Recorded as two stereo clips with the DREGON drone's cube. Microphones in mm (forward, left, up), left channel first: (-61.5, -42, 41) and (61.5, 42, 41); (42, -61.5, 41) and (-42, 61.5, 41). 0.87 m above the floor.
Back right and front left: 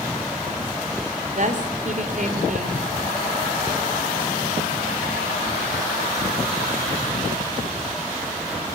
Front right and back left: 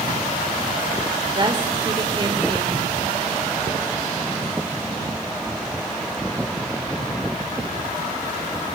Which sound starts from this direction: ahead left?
A woman speaking, at 1.4 s.